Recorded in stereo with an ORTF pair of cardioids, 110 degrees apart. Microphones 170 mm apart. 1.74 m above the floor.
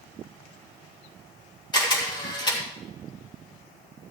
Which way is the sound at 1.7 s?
25° left.